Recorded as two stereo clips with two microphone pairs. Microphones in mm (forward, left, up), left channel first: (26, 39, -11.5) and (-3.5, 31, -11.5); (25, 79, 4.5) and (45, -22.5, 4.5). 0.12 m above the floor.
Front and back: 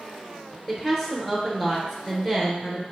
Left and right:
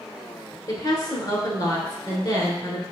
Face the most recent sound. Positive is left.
turn(degrees=90)